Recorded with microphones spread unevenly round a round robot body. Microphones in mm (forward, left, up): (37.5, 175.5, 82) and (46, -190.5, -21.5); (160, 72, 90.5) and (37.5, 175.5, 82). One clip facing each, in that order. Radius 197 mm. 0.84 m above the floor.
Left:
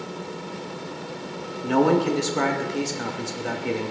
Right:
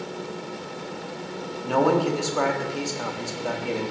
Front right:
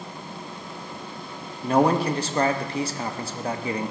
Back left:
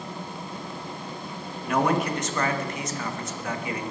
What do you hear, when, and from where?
1.6 s a man speaking: 25° left, 1.0 m